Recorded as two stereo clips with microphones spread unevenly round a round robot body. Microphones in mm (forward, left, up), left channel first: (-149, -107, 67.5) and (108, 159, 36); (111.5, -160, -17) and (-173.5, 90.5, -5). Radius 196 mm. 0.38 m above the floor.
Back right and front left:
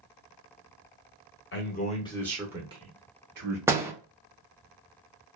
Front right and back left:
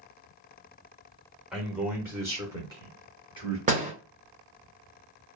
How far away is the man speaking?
About 0.9 m.